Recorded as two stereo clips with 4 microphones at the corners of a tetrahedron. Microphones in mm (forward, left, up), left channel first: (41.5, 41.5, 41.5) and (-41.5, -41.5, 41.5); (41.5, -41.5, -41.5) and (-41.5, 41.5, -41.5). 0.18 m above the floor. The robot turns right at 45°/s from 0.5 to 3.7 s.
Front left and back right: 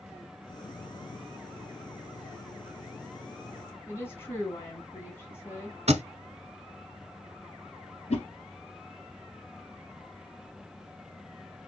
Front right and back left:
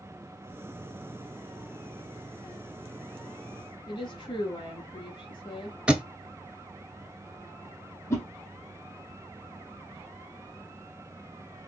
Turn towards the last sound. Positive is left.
turn(degrees=20)